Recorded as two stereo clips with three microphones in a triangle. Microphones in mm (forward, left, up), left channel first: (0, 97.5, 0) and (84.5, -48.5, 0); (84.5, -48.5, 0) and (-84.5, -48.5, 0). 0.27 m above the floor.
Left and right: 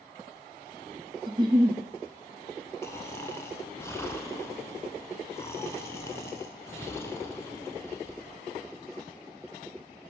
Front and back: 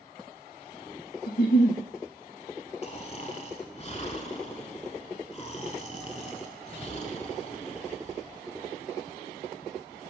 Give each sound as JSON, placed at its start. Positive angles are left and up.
{"t": 1.3, "sound": "a giggle", "azimuth_deg": 5, "distance_m": 0.9}
{"t": 2.8, "sound": "snoring", "azimuth_deg": 45, "distance_m": 0.8}